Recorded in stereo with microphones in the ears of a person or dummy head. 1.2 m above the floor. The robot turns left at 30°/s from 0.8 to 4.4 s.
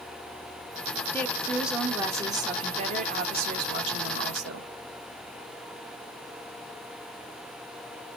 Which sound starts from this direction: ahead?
A woman speaking, at 1.1 s.